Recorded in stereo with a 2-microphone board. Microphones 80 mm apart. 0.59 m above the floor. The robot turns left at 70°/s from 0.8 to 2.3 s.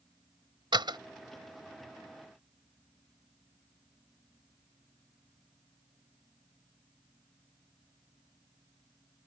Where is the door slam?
75° right (ahead or behind); by 1.0 s 70° right (ahead or behind).